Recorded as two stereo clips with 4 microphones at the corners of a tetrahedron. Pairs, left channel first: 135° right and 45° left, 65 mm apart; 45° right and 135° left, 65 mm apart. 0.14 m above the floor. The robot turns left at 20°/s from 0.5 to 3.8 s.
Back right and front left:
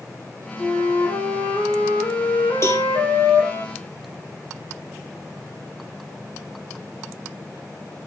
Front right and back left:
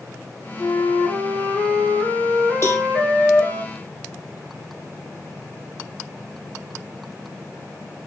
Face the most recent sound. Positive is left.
turn(degrees=-120)